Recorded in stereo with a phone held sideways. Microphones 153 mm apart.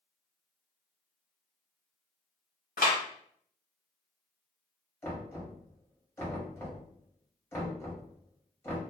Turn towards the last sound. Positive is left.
turn(degrees=15)  # may be behind; listen again after turning